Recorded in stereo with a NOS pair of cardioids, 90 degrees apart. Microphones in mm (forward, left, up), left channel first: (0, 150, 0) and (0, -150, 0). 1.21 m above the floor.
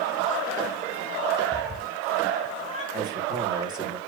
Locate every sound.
1.5 s a cat meowing: 15° left, 4.5 m; by 2.8 s 20° left, 6 m
2.9 s a man speaking: 15° right, 2.5 m